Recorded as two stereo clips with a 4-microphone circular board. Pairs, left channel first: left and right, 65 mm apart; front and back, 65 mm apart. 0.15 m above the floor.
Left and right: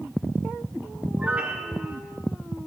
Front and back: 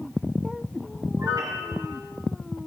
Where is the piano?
160° right, 3 m.